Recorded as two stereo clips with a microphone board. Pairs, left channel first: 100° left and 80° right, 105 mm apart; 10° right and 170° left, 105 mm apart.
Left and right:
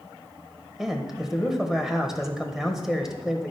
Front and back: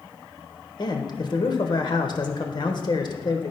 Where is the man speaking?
5° left, 1.2 m.